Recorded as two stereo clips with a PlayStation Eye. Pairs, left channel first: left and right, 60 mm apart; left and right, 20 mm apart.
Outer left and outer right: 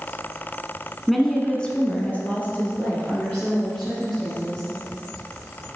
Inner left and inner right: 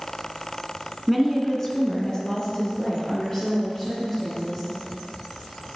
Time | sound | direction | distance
1.1 | a woman speaking | centre (ahead or behind) | 1.3 m